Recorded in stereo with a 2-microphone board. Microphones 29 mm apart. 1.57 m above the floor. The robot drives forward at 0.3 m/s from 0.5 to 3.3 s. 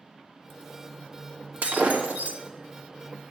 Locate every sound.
1.6 s breaking glass: 65° right (ahead or behind), 1.6 m; by 2.4 s 60° right (ahead or behind), 1.6 m